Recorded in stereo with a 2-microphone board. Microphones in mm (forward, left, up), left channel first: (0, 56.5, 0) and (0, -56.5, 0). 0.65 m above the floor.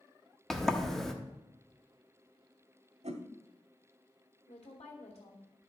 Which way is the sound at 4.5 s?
75° left (ahead or behind).